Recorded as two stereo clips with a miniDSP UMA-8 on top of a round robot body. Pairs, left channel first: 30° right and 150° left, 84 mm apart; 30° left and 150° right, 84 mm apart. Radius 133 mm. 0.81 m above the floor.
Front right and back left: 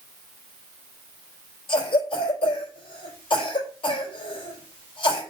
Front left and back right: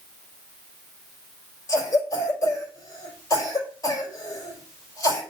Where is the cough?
20° right, 4.5 m.